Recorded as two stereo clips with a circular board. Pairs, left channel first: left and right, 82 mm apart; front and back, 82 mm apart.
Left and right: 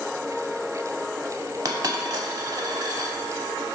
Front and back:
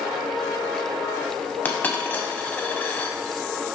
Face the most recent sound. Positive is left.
turn(degrees=-65)